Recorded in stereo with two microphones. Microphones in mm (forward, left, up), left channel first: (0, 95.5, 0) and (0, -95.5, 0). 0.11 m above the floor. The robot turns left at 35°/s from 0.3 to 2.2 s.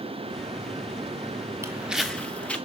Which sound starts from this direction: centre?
Footsteps, at 1.6 s.